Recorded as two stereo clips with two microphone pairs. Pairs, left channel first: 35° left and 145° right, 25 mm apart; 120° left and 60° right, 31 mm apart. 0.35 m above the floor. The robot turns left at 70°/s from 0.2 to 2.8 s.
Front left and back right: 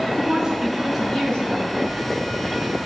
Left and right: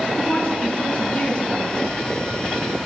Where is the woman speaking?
170° left, 4 m; by 1.7 s 65° left, 4 m.